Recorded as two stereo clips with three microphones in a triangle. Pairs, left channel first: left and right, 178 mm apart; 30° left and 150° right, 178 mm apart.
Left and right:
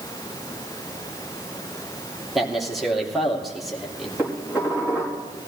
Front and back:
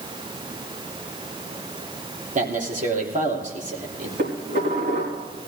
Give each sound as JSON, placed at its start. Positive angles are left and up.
{"t": 2.4, "sound": "a man speaking", "azimuth_deg": 180, "distance_m": 3.0}
{"t": 4.2, "sound": "dishes clattering", "azimuth_deg": -170, "distance_m": 5.5}